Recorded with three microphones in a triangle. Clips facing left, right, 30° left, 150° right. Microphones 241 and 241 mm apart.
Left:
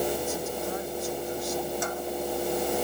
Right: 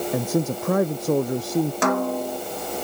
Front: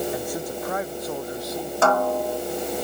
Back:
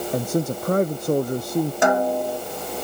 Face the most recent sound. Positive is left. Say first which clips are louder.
# right 8 dB, front 3 dB
turn(degrees=-75)